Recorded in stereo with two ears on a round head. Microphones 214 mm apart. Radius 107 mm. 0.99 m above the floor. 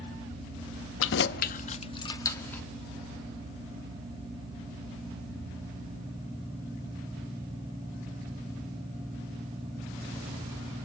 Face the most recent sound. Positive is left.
turn(degrees=5)  # may be behind; listen again after turning